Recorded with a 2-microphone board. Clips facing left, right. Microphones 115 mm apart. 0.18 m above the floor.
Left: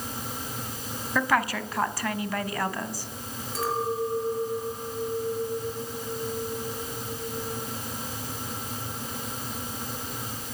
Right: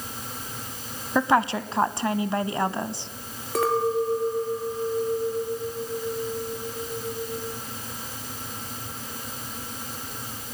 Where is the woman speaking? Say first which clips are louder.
Right 4 dB; 25° right (ahead or behind), 1.1 m.